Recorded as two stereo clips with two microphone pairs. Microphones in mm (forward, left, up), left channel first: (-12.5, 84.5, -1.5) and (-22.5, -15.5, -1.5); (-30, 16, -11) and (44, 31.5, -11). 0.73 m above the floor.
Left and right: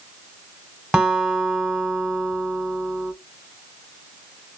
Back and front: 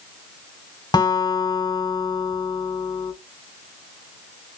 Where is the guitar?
Straight behind, 1.0 m.